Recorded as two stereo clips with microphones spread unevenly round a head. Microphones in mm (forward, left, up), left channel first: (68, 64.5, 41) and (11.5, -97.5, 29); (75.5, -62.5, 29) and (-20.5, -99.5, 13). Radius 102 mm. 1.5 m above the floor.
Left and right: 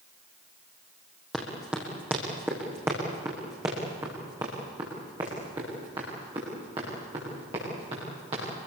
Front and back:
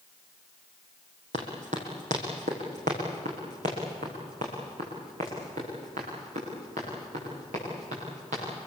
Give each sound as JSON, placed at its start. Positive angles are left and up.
{"t": 1.3, "sound": "running footsteps", "azimuth_deg": 160, "distance_m": 4.5}